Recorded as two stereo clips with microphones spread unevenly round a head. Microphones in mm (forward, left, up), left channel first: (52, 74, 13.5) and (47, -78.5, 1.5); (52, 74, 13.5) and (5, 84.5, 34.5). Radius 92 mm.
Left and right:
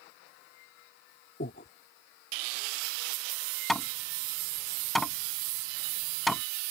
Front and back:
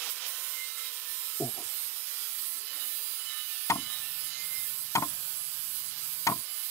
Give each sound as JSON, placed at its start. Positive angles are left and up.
{"t": 1.4, "sound": "breathing", "azimuth_deg": 125}
{"t": 3.7, "sound": "hammering", "azimuth_deg": 0}